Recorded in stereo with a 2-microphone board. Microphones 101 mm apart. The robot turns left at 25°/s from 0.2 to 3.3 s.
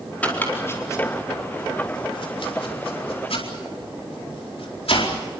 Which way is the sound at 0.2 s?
15° left (ahead or behind).